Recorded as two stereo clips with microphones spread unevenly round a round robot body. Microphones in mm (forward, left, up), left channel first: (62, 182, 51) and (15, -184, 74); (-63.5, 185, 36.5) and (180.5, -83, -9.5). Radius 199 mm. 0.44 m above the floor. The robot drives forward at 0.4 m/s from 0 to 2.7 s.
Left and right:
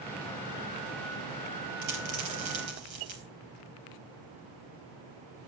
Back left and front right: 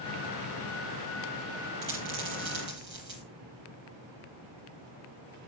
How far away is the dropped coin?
About 6.5 m.